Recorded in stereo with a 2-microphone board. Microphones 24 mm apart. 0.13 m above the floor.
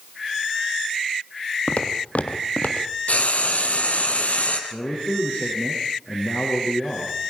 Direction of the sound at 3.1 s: 65° left (ahead or behind).